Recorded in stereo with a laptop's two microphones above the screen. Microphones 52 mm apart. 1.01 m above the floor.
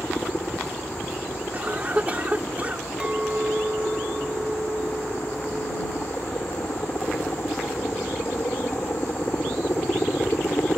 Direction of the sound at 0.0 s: 40° left (ahead or behind).